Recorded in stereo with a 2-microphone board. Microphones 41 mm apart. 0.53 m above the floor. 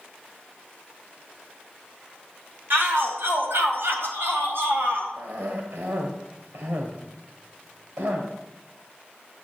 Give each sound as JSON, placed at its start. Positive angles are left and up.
{"t": 2.7, "sound": "a shout", "side_deg": -65, "distance_m": 4.5}
{"t": 5.2, "sound": "a cough", "side_deg": -70, "distance_m": 1.9}